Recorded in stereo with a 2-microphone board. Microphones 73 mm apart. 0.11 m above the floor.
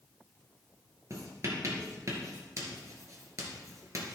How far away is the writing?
About 2 m.